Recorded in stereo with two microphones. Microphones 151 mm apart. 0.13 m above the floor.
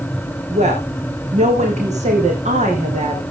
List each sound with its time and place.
0.5 s a woman speaking: 50° right (ahead or behind), 8 m